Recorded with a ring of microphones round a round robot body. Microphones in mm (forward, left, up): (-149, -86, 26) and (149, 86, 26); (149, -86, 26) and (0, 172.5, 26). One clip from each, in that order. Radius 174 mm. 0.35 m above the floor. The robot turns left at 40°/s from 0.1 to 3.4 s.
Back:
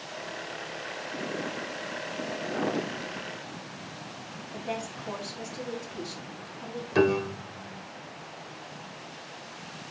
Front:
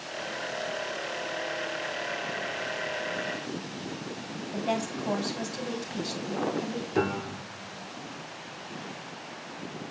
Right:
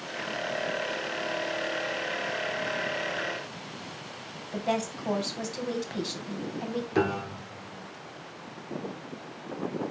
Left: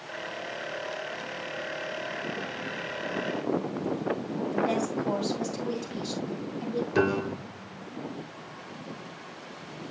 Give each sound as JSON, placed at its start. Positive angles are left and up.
{"t": 4.5, "sound": "a woman speaking", "azimuth_deg": 0, "distance_m": 2.5}
{"t": 6.9, "sound": "a piano", "azimuth_deg": -170, "distance_m": 0.8}